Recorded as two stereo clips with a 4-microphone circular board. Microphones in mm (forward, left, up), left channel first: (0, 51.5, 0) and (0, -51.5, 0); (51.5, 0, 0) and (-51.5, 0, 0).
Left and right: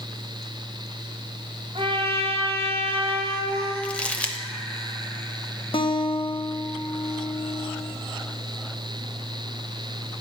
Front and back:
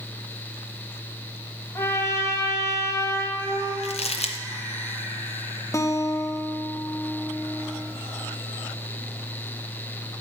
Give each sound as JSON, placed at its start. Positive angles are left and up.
{"t": 1.8, "sound": "a trumpet", "azimuth_deg": -60, "distance_m": 1.3}
{"t": 3.8, "sound": "crumpling", "azimuth_deg": 10, "distance_m": 0.7}
{"t": 5.7, "sound": "a guitar", "azimuth_deg": 60, "distance_m": 0.7}